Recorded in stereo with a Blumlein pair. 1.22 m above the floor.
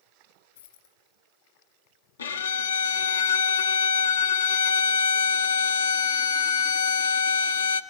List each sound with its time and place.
0.6 s a dropped coin: 65° left, 3.5 m
2.2 s a violin: 70° left, 0.7 m